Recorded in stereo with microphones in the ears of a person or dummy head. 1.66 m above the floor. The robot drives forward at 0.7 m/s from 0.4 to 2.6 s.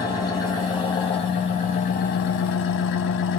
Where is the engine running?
20° left (ahead or behind), 1.7 m; by 3.4 s 55° left (ahead or behind), 0.7 m.